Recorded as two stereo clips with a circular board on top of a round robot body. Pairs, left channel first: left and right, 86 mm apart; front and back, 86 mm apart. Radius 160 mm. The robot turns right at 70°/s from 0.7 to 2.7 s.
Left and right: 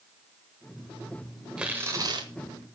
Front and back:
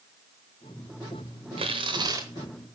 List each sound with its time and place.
1.6 s tearing paper: 170° right, 0.8 m; by 2.3 s 120° right, 0.8 m